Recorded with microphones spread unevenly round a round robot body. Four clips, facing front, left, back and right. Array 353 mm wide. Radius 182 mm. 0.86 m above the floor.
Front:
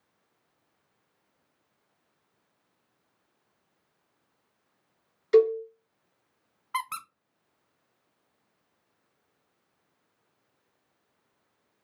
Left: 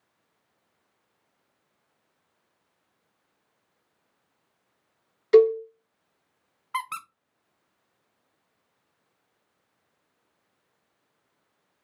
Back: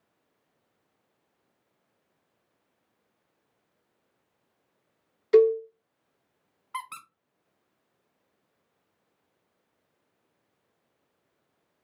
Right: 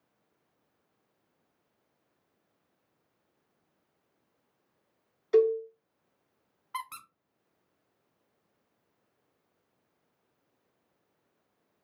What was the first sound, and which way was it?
A cowbell, 120° left.